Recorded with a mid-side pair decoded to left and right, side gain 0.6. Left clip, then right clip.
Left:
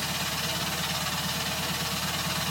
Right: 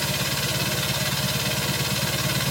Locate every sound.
0.0 s a machine running: 70° right, 1.2 m